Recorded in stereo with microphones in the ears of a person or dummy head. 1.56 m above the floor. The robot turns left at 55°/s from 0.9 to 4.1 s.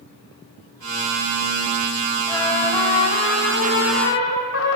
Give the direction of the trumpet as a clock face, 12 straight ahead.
7 o'clock.